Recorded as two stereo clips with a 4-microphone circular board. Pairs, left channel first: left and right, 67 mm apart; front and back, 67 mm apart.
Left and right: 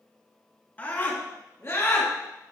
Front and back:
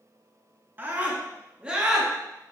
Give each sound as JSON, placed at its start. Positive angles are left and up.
{"t": 0.8, "sound": "a scream", "azimuth_deg": 140, "distance_m": 1.8}